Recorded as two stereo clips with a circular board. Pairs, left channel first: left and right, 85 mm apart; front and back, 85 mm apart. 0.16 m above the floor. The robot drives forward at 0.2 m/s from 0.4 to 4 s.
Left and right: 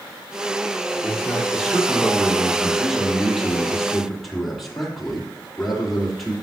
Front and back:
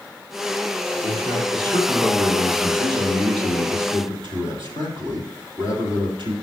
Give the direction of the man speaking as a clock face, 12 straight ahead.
6 o'clock.